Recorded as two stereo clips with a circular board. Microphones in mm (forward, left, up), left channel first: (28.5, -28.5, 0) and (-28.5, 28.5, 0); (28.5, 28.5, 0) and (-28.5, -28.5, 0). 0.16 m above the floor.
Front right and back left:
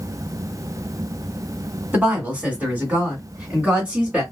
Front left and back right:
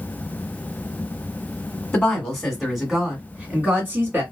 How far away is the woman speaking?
About 1.6 m.